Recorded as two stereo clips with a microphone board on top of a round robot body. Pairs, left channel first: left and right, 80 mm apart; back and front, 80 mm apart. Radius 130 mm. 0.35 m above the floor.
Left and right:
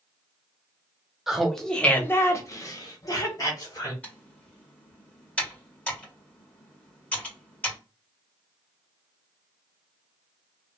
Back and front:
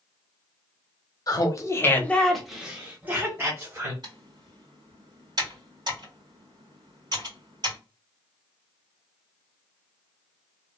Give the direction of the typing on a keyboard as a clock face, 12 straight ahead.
11 o'clock.